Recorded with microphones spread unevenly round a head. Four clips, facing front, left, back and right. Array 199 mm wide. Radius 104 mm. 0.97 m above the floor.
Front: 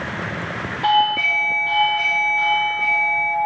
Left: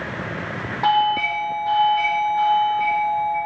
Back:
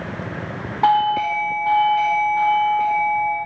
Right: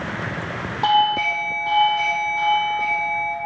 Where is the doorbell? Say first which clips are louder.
Even, back 1 dB; 175° left, 2.5 m.